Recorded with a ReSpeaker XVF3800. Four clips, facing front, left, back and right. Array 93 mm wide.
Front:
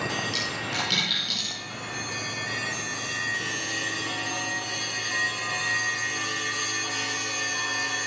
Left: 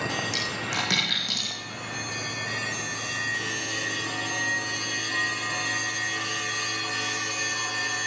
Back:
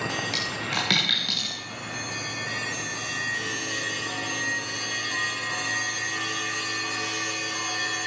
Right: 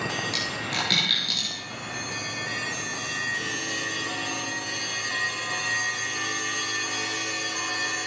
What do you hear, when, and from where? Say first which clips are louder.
0.3 s a dropped coin: even, back 1 dB; 160° left, 5.5 m